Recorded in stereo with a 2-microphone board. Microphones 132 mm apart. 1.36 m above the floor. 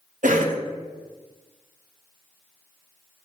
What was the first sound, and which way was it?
A cough, 80° right.